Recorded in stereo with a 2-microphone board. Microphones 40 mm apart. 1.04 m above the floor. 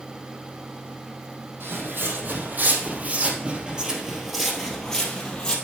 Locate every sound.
1.6 s footsteps: 60° right (ahead or behind), 2.5 m; by 5.5 s 25° left (ahead or behind), 2 m